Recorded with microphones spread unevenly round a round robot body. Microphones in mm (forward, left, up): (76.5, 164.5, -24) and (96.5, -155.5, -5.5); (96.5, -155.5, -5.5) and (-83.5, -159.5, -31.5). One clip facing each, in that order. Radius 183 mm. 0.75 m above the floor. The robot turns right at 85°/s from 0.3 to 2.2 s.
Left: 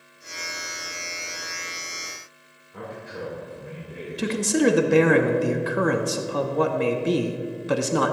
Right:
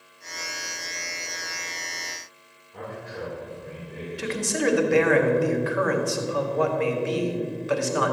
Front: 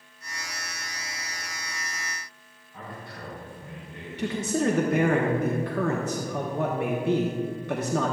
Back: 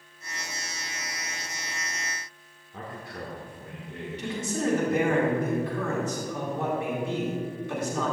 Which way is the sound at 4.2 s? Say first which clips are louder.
Left 6 dB, front 4 dB; 55° left.